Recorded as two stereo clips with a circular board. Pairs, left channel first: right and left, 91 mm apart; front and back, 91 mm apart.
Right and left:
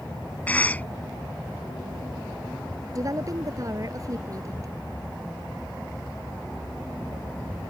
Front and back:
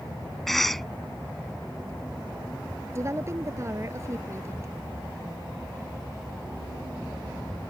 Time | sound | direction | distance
0.5 | a cough | 85° right | ?
3.0 | a woman speaking | 130° left | ?